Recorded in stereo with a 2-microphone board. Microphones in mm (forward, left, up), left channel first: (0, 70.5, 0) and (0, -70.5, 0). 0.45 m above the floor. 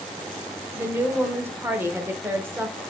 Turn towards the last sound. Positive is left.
turn(degrees=-15)  # may be behind; listen again after turning